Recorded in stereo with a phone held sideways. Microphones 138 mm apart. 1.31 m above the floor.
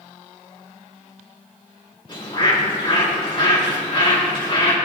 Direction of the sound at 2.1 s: 35° left (ahead or behind).